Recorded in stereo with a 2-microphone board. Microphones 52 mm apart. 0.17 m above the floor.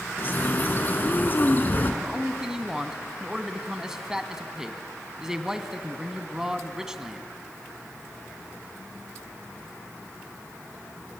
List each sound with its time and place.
0.2 s a bird: 35° left (ahead or behind), 1.7 m
2.0 s a man speaking: 10° right (ahead or behind), 1.2 m